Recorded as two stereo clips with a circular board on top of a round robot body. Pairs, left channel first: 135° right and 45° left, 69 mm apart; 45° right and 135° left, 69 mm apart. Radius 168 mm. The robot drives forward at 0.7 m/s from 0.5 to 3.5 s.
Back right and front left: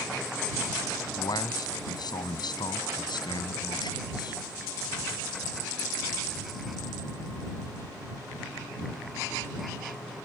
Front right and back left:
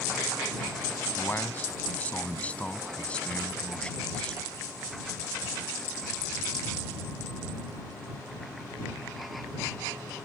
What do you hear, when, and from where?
1.0 s a man speaking: 110° right; by 4.4 s 120° right